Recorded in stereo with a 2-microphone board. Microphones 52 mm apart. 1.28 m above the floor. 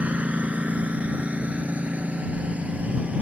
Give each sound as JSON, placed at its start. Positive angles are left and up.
{"t": 0.0, "sound": "a lawn mower", "side_deg": -25}